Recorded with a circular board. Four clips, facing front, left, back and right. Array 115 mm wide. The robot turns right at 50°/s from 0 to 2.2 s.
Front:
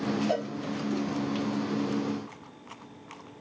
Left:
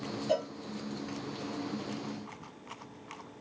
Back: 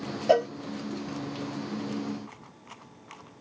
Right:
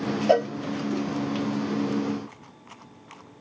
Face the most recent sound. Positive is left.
turn(degrees=-25)